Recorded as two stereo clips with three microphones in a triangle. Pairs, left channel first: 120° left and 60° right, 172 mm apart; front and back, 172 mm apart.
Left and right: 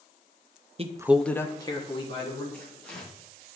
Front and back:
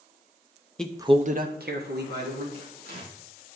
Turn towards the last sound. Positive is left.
turn(degrees=-155)